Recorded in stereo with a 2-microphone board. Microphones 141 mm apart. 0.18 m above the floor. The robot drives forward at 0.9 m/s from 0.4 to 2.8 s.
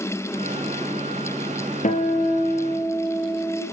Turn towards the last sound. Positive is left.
turn(degrees=70)  # may be behind; listen again after turning